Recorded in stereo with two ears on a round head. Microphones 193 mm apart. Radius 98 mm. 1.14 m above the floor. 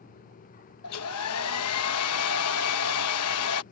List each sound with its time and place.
0.8 s a hair dryer: 80° left